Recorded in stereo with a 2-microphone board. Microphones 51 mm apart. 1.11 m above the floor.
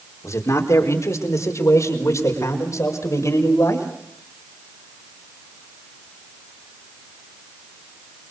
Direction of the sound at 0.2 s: 80° left.